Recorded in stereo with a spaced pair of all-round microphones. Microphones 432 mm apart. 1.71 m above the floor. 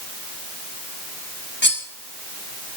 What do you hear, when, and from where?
1.6 s cutlery clinking: 25° left (ahead or behind), 1.4 m